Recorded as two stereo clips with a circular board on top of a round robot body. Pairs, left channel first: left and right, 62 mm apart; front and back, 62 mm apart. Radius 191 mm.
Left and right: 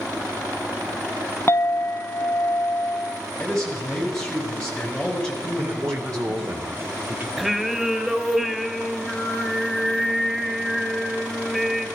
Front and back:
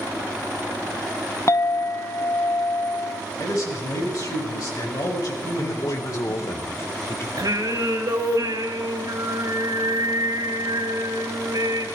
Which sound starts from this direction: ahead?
A man speaking, at 3.4 s.